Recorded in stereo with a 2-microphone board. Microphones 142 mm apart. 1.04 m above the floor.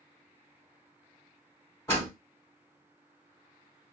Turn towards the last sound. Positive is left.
turn(degrees=15)  # may be behind; listen again after turning